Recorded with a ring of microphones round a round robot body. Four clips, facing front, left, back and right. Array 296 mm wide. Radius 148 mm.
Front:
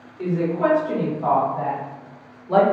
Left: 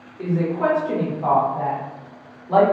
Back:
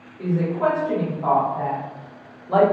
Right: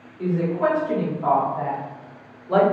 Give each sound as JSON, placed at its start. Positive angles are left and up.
{"t": 0.2, "sound": "a woman speaking", "azimuth_deg": 80, "distance_m": 1.6}